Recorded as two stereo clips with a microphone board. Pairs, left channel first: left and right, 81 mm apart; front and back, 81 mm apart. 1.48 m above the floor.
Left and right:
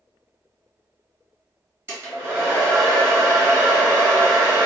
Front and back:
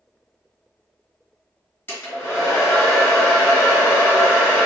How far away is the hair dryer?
About 1.7 m.